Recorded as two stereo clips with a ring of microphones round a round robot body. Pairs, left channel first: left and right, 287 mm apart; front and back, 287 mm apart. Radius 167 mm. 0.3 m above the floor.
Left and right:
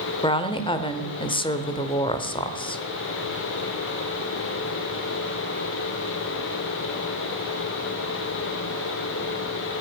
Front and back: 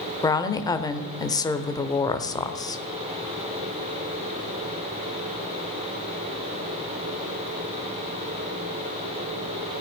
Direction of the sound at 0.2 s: 55° left.